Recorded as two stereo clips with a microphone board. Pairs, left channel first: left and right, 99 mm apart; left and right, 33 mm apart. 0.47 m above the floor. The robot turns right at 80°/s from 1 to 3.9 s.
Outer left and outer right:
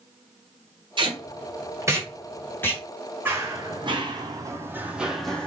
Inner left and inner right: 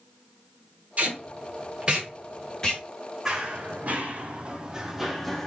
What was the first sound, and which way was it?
Tape being pulled, 55° right (ahead or behind).